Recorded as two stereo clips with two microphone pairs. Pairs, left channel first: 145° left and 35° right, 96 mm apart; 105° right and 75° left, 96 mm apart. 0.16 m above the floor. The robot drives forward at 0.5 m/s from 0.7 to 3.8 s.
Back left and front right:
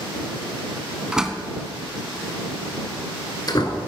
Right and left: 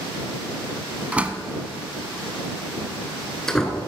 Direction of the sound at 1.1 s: 25° left.